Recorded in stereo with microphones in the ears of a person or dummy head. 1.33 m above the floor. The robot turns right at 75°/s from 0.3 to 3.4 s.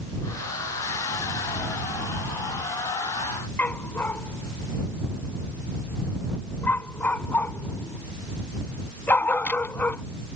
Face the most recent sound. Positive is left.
turn(degrees=15)  # may be behind; listen again after turning